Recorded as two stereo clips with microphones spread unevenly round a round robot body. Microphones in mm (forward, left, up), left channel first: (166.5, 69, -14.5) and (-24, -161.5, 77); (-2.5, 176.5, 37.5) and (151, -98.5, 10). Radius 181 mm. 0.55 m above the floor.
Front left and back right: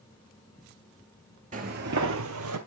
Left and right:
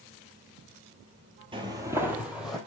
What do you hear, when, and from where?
1.5 s footsteps: 135° right, 0.6 m; by 2.6 s 155° right, 1.0 m